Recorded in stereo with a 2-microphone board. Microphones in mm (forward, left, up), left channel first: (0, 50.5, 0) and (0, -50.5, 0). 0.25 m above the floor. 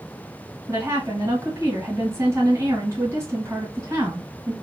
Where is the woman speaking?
30° right (ahead or behind), 1.6 m.